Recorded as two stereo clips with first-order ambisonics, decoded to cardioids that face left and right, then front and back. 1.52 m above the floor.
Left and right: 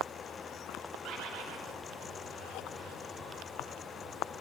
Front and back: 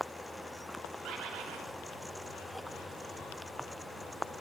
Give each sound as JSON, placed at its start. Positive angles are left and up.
{"t": 1.0, "sound": "a bird", "azimuth_deg": -135, "distance_m": 4.0}